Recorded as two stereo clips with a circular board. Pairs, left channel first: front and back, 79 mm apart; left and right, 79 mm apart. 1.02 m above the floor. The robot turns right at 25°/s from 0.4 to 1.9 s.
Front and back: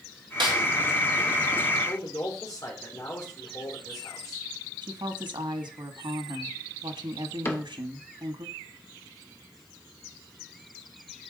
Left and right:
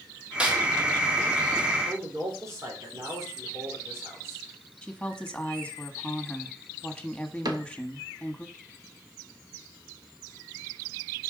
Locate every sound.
0.4 s a snare drum: 165° right, 2.0 m; by 0.6 s 160° right, 2.0 m
1.9 s a man speaking: 40° right, 3 m
4.8 s a woman speaking: 170° left, 1.5 m
7.5 s a cupboard door: 60° right, 1.1 m